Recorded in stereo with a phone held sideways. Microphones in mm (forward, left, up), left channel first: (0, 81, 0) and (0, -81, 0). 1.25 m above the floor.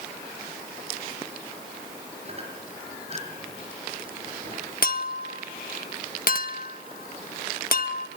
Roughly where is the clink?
Left.